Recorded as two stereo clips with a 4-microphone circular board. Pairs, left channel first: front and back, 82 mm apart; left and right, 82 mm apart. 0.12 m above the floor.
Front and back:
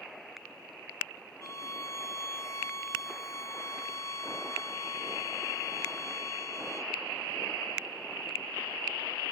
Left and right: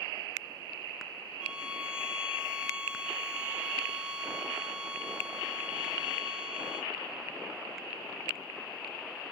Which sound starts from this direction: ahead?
A violin, at 1.4 s.